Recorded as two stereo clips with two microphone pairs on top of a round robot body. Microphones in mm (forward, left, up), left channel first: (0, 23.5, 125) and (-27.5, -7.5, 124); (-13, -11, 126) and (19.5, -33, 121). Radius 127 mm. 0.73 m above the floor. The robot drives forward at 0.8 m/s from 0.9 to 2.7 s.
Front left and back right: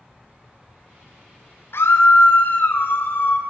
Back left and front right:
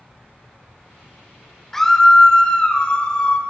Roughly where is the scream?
Ahead left.